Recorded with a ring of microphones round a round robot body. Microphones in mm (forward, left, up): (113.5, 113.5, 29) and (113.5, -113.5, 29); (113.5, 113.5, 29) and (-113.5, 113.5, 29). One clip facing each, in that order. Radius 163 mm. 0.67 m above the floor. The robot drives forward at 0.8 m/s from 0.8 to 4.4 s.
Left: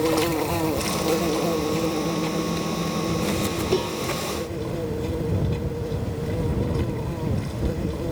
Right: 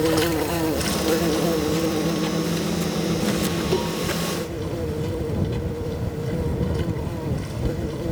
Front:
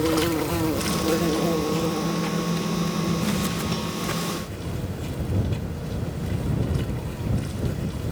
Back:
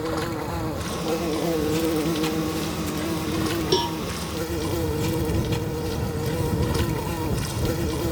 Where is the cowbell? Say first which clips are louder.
Left 2 dB, back 6 dB; 170° left.